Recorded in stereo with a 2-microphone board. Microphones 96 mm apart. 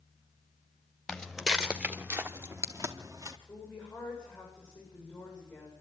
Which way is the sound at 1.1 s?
5° left (ahead or behind).